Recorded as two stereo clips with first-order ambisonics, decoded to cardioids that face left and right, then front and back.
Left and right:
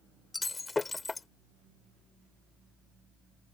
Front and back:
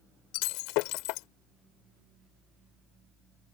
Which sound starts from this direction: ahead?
Breaking glass, at 0.3 s.